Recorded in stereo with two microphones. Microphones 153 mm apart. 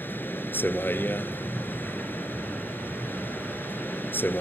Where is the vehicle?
15° left (ahead or behind).